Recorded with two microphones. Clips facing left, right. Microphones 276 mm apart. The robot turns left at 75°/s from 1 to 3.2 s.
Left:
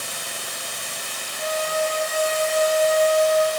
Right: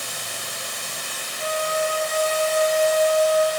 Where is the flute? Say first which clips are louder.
Even; 115° left, 2 m; by 3.5 s 20° right, 2 m.